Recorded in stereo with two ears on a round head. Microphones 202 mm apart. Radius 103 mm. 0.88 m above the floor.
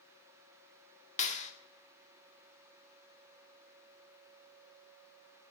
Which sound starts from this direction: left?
A clap, at 1.2 s.